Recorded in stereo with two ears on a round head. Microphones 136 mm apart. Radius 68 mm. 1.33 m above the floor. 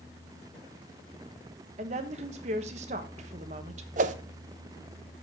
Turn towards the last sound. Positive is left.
turn(degrees=-50)  # may be behind; listen again after turning